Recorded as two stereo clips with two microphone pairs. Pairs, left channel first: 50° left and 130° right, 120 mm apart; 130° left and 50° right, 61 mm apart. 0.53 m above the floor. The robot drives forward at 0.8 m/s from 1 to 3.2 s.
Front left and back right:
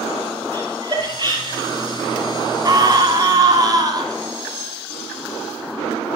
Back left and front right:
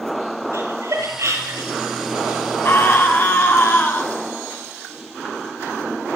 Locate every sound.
0.5 s laughter: 80° right, 8.5 m; by 1.7 s 85° right, 8.5 m
2.6 s a scream: 175° left, 5.5 m